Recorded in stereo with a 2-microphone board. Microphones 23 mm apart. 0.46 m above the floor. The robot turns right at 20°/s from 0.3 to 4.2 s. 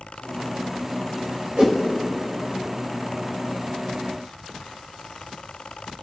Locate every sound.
1.6 s a whoosh: 45° right (ahead or behind), 1.3 m; by 1.8 s 40° right (ahead or behind), 1.3 m